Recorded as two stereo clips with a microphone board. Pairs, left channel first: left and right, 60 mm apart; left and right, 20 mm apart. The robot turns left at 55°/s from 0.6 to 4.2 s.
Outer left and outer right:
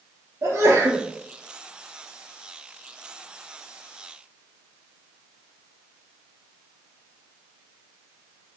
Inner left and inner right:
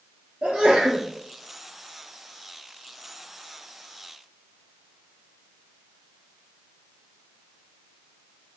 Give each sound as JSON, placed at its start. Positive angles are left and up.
{"t": 0.4, "sound": "a sneeze", "side_deg": -55, "distance_m": 4.0}